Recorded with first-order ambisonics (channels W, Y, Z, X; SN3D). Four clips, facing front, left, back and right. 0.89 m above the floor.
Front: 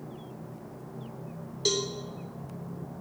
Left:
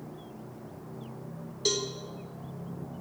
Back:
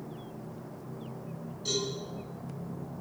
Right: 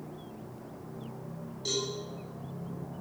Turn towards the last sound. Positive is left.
turn(degrees=35)